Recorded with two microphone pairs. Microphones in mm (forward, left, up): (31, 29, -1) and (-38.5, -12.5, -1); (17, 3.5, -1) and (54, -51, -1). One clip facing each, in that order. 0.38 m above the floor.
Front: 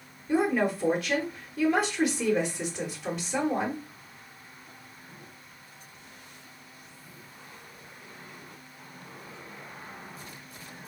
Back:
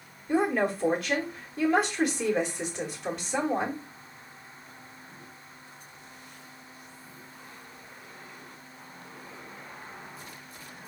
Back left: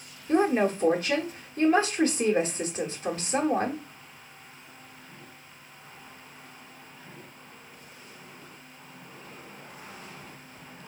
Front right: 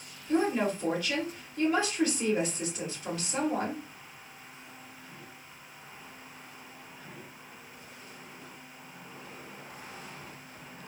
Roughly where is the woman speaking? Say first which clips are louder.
Even, back left 4 dB; behind left.